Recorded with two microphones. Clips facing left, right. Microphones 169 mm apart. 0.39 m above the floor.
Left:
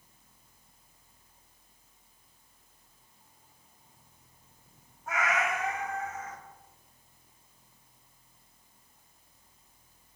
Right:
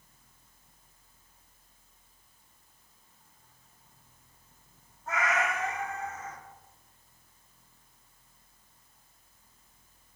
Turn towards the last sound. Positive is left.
turn(degrees=10)  # may be behind; listen again after turning